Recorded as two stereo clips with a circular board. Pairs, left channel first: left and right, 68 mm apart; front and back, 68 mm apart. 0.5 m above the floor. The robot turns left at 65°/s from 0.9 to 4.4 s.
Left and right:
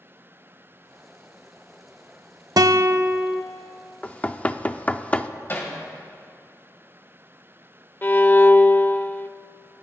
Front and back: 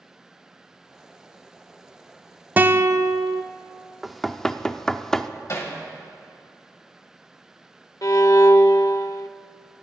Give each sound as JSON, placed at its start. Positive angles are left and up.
{"t": 2.6, "sound": "a guitar", "azimuth_deg": -115, "distance_m": 0.5}
{"t": 4.0, "sound": "knocking", "azimuth_deg": 100, "distance_m": 0.5}
{"t": 5.5, "sound": "hammering", "azimuth_deg": 40, "distance_m": 3.0}
{"t": 8.0, "sound": "a violin", "azimuth_deg": 35, "distance_m": 0.5}